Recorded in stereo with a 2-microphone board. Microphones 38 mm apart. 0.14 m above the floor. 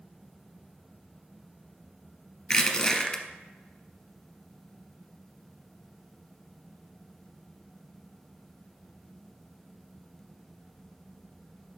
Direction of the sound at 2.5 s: 15° left (ahead or behind).